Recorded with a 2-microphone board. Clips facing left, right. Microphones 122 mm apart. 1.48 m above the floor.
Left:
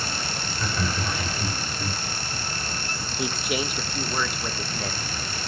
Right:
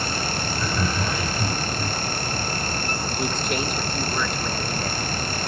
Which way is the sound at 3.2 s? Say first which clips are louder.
Even; 5° left (ahead or behind).